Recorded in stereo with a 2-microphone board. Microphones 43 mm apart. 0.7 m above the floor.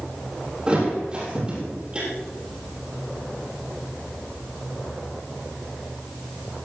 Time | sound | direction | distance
0.7 | a thud | 25° right (ahead or behind) | 6.5 m